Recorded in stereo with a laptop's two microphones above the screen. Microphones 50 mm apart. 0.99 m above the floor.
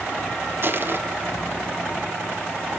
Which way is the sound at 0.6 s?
45° right (ahead or behind).